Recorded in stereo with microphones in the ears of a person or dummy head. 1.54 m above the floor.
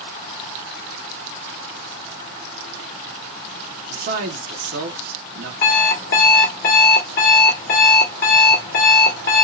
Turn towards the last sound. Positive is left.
turn(degrees=55)  # may be behind; listen again after turning